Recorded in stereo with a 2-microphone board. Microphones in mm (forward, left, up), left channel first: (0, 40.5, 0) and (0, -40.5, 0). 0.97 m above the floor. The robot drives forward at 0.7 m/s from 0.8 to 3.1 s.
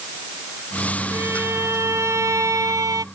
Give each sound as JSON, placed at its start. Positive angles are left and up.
{"t": 1.1, "sound": "a violin", "side_deg": -30}